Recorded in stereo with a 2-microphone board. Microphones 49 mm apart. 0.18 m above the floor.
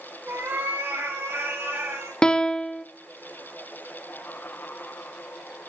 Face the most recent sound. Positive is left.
turn(degrees=15)  # may be behind; listen again after turning